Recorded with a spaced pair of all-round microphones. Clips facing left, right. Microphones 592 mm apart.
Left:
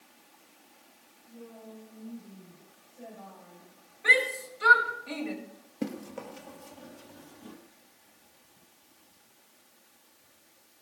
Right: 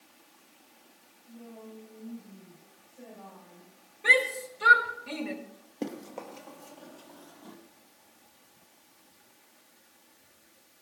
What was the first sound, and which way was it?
A woman speaking, 30° right (ahead or behind).